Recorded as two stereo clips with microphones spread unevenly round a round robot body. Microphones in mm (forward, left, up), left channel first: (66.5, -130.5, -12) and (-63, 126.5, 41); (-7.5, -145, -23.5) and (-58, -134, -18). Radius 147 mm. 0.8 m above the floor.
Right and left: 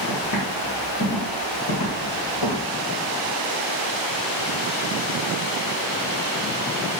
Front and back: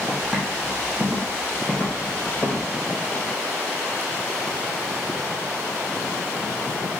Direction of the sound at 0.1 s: 115° right.